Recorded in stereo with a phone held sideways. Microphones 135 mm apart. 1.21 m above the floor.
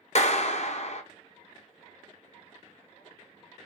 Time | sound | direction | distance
0.1 | a clap | 55° left (ahead or behind) | 0.5 m